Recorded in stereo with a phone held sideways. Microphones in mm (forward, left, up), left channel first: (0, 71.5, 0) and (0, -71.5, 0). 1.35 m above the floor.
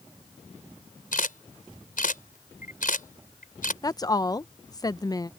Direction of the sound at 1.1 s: 75° left (ahead or behind).